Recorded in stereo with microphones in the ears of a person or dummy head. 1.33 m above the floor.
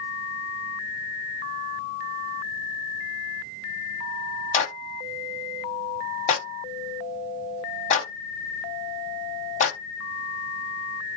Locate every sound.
4.5 s a clap: 45° left (ahead or behind), 3 m